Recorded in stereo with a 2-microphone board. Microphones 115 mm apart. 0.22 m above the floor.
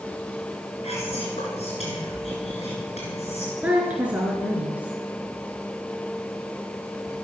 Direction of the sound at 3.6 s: 10° right (ahead or behind).